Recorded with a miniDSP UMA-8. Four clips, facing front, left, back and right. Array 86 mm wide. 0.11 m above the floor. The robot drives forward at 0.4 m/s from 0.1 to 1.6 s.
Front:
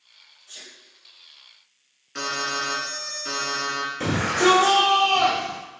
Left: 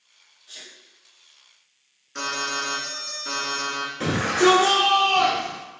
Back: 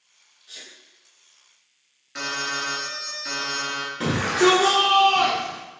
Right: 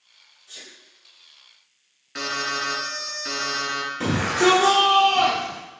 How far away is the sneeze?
About 1.2 m.